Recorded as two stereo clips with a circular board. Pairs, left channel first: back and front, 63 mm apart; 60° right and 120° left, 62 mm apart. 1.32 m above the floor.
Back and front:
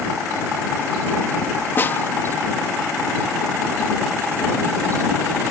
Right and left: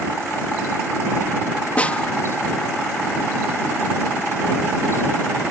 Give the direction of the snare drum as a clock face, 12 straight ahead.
4 o'clock.